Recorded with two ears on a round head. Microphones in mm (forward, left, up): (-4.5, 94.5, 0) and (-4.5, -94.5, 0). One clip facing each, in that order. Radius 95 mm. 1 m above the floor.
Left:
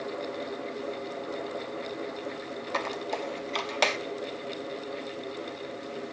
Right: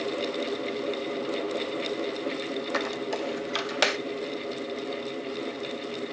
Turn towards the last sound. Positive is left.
turn(degrees=-10)  # may be behind; listen again after turning